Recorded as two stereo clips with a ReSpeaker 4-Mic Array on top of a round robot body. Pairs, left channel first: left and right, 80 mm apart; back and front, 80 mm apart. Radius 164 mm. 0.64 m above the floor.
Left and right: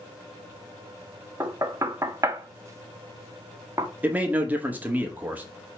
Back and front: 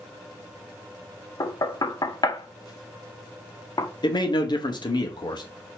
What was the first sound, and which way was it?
Knocking, 140° right.